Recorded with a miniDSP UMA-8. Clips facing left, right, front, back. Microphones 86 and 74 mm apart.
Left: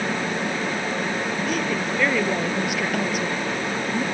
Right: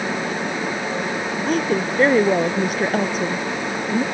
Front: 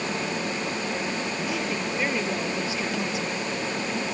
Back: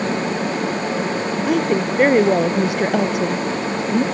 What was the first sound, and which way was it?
A woman speaking, 140° right.